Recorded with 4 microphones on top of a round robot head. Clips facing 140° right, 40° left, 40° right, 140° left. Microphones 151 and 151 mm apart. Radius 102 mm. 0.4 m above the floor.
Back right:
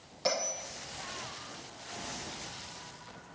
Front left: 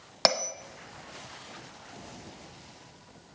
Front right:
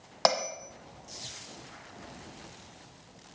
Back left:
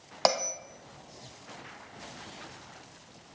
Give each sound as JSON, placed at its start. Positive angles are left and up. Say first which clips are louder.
{"t": 0.2, "sound": "a bell", "louder": "front left 4 dB, even", "azimuth_deg": 55, "distance_m": 0.8}